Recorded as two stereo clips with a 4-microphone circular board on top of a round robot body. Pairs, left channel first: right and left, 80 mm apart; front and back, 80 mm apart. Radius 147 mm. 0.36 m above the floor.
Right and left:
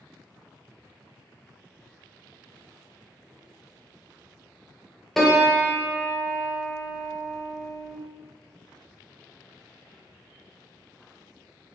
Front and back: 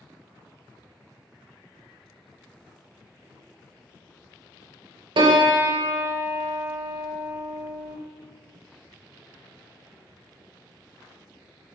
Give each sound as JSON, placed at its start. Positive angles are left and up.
{"t": 5.2, "sound": "a piano", "azimuth_deg": -175, "distance_m": 0.6}